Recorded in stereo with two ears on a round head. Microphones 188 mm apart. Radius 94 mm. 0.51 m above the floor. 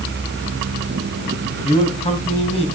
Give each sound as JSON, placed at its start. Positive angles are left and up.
{"t": 1.6, "sound": "a man speaking", "side_deg": 25, "distance_m": 3.5}